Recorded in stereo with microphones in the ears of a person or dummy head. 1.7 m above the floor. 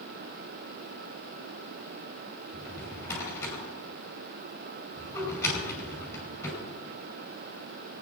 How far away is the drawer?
About 5.5 m.